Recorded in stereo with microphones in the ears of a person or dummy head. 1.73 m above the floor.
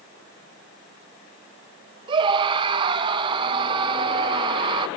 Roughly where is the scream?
Right.